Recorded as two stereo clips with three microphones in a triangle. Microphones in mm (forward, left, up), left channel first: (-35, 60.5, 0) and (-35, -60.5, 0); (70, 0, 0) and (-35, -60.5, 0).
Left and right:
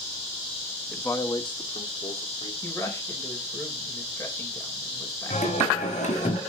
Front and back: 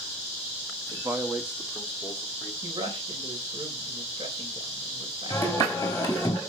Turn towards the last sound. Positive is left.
turn(degrees=95)